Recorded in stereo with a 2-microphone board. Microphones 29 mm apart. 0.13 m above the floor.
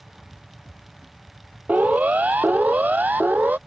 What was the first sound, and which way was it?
A siren, 70° right (ahead or behind).